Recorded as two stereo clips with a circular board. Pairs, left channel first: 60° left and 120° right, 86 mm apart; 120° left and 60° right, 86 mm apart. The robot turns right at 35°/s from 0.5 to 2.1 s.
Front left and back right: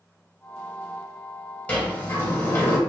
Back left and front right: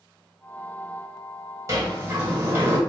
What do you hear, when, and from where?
1.7 s a sliding door: 10° right, 1.2 m; by 2.8 s 5° left, 1.2 m